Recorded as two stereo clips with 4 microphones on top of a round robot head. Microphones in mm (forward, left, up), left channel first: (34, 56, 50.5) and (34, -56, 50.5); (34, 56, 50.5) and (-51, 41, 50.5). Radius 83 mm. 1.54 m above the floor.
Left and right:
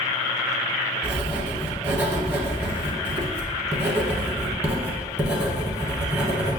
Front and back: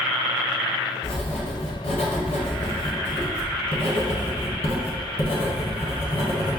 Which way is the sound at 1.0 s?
20° right.